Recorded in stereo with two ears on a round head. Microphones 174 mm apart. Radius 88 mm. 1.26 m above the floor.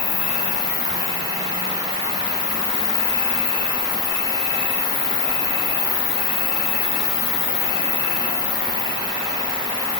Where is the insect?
65° left (ahead or behind), 8.5 m.